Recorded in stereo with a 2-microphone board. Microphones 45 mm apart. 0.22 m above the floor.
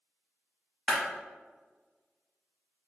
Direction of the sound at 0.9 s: 15° left (ahead or behind).